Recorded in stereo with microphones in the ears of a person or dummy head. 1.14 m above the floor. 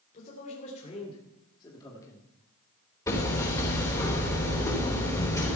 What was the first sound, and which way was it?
A man speaking, 40° left (ahead or behind).